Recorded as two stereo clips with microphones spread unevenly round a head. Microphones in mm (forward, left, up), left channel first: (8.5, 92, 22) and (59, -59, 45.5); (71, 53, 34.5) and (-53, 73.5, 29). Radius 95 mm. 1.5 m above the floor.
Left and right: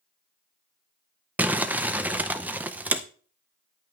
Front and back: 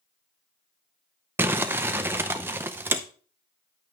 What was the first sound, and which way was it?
Crumpling, 125° right.